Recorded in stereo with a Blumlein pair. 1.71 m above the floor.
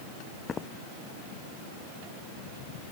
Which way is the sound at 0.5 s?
20° left.